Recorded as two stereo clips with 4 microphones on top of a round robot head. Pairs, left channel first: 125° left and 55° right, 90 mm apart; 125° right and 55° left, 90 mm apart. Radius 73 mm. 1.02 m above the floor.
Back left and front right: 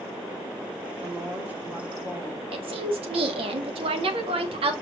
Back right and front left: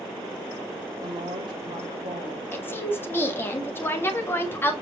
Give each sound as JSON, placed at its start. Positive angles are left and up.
{"t": 1.0, "sound": "a woman speaking", "azimuth_deg": 20, "distance_m": 4.0}
{"t": 2.5, "sound": "a woman speaking", "azimuth_deg": -60, "distance_m": 1.9}